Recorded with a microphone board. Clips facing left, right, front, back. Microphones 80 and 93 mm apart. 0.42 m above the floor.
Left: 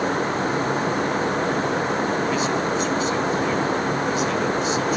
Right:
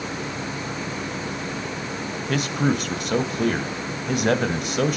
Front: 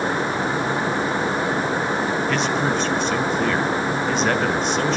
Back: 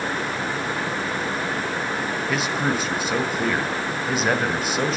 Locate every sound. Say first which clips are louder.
2.3 s a man speaking: left 1 dB, front 2 dB; 95° right, 2.5 m